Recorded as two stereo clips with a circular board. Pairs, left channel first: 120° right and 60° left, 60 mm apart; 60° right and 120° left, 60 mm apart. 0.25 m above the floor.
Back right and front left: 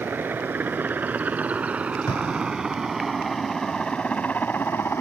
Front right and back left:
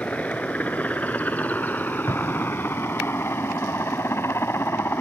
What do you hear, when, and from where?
0.0 s a helicopter: 5° left; by 5.0 s 95° right
2.1 s an explosion: 95° right